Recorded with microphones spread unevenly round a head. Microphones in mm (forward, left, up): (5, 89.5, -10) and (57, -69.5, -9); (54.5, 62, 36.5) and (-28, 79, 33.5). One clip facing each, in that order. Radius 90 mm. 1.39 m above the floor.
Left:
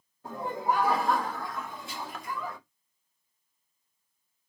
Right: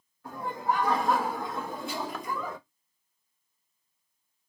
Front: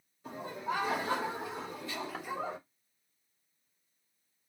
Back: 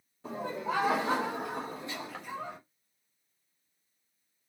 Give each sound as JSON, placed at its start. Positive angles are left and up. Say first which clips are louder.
{"t": 0.2, "sound": "laughter", "louder": "left 1 dB, back 3 dB", "azimuth_deg": 180, "distance_m": 1.4}